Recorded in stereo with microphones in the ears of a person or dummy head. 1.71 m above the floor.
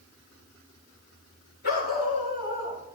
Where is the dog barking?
50° left (ahead or behind), 7 m; by 2.8 s 55° left (ahead or behind), 6.5 m.